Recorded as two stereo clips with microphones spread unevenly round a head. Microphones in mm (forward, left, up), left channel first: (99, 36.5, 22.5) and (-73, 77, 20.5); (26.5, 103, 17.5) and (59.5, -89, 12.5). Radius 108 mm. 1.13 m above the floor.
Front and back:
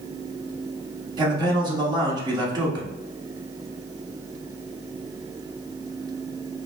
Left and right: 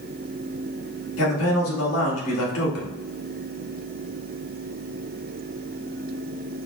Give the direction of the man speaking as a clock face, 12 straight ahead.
9 o'clock.